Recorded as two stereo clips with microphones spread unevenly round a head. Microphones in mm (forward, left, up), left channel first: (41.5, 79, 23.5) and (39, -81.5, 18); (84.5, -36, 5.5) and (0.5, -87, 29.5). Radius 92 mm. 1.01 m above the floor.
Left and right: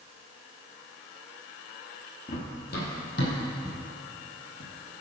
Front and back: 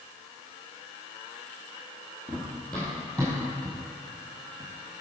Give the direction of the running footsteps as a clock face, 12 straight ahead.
8 o'clock.